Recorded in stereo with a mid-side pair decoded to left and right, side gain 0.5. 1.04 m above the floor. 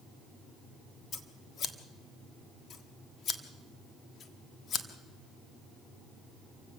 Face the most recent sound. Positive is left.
turn(degrees=50)